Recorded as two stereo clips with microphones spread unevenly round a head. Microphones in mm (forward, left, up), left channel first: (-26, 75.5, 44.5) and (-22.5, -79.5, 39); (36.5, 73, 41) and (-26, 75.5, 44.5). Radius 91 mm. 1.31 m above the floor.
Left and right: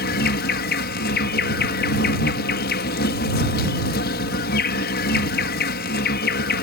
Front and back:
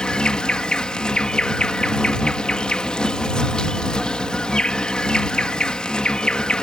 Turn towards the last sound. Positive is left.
turn(degrees=75)